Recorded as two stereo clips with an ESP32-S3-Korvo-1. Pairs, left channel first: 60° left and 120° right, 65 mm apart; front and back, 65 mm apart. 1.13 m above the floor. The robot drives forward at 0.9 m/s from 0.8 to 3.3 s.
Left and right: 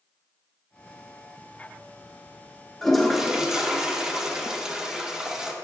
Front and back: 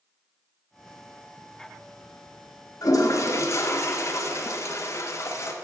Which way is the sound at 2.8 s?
25° right.